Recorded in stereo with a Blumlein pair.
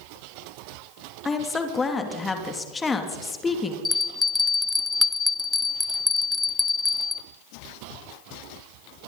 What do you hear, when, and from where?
1.2 s a woman speaking: 15° left, 3 m
3.9 s a bell: 10° left, 0.8 m